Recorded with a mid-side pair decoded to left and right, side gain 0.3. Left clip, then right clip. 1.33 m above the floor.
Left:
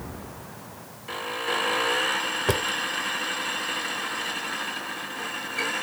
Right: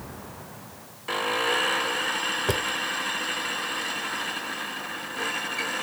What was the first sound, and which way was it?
A drawer, 20° left.